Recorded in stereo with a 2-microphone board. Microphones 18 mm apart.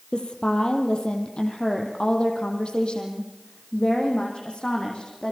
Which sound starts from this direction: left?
A woman speaking, at 0.1 s.